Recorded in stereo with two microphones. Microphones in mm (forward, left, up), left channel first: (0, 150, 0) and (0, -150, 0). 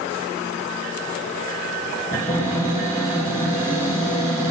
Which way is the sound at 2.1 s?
20° left (ahead or behind).